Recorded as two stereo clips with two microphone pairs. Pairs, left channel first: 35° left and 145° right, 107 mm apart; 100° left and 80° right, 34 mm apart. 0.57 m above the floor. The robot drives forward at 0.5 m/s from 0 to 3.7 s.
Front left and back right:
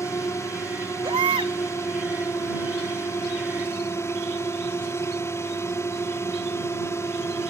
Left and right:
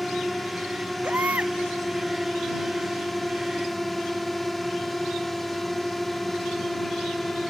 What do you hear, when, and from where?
0.0 s a drone: 20° left
1.0 s a baby crying: 110° right; by 1.5 s 115° right